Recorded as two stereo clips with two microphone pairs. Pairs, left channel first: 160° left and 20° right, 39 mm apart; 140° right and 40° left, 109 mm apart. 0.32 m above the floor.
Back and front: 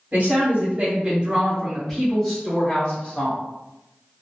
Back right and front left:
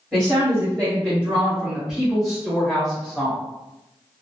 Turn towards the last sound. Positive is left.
turn(degrees=135)